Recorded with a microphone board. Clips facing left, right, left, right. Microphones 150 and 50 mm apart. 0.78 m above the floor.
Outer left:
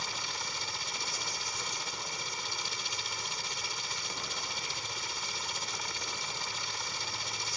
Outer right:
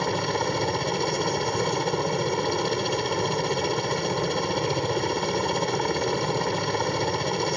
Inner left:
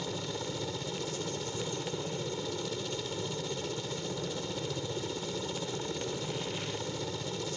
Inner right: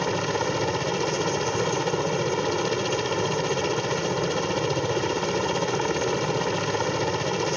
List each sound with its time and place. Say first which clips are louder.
0.0 s a helicopter: outer right 17 dB, inner right 12 dB; 65° right (ahead or behind)